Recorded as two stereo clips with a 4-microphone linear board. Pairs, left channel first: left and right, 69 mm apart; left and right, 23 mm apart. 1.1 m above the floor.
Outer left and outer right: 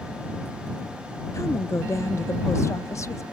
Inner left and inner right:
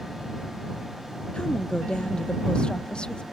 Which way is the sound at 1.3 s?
45° left (ahead or behind).